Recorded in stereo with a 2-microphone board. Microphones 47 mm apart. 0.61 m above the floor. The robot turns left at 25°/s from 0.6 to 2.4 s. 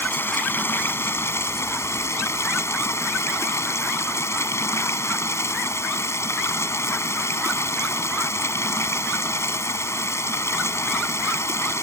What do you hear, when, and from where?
0.0 s running water: 130° left; by 11.8 s 85° left